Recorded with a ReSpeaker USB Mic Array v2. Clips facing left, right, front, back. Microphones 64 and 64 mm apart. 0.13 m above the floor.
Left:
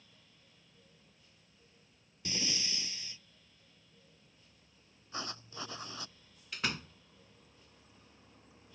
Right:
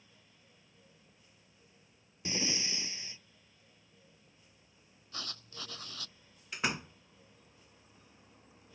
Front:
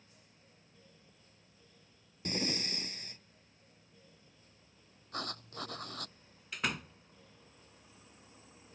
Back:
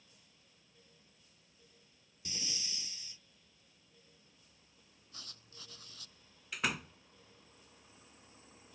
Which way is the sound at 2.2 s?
25° right.